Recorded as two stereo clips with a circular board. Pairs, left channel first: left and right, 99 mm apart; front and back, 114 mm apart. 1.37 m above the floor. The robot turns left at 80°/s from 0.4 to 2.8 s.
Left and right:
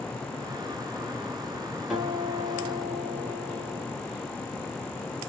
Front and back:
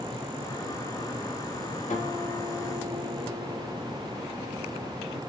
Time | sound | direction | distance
1.9 | a guitar | 5° right | 3 m